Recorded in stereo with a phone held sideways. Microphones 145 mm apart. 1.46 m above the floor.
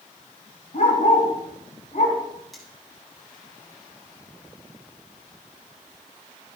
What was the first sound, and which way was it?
A dog barking, 60° left (ahead or behind).